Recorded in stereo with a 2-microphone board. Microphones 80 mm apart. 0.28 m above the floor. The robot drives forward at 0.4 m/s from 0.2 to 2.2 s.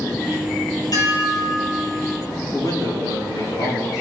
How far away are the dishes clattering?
About 4.5 m.